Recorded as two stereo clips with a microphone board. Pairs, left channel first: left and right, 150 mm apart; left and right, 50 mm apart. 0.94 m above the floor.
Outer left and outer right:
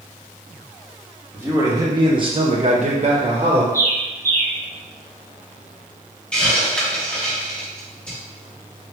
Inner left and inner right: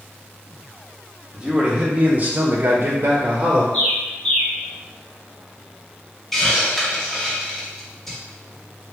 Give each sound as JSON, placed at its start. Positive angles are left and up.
{"t": 1.3, "sound": "a man speaking", "side_deg": -20, "distance_m": 1.4}
{"t": 3.7, "sound": "a bird", "side_deg": 20, "distance_m": 0.9}
{"t": 6.3, "sound": "a hiss", "side_deg": 10, "distance_m": 1.3}